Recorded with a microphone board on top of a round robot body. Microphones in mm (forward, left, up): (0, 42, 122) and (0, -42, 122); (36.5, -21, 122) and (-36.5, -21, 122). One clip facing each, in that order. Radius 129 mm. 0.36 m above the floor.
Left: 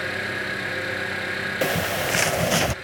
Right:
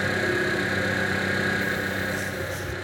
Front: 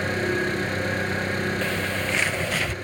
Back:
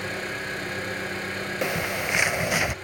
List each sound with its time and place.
0.0 s an engine running: 30° right, 7.5 m
1.6 s a bird: 105° left, 0.5 m